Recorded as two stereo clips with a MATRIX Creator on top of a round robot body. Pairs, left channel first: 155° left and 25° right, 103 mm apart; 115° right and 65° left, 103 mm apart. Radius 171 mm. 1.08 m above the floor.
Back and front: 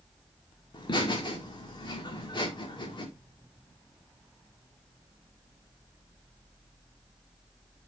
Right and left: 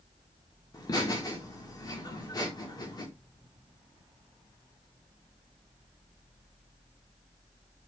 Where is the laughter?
165° right, 2 m.